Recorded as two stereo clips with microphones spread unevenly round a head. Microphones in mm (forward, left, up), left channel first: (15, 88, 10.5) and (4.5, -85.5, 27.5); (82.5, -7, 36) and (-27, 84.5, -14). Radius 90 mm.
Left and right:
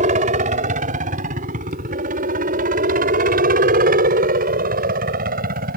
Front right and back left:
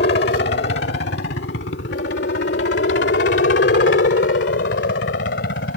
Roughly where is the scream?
I don't hear a scream.